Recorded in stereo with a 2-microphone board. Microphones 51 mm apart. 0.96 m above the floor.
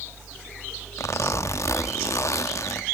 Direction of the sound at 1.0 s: 75° left (ahead or behind).